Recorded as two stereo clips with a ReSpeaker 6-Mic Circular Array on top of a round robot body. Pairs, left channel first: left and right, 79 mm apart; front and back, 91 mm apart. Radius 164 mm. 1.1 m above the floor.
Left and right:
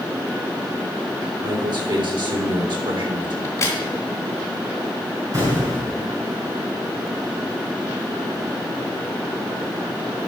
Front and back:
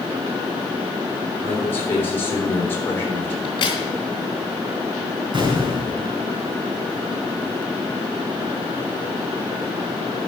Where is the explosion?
140° right, 3.5 m.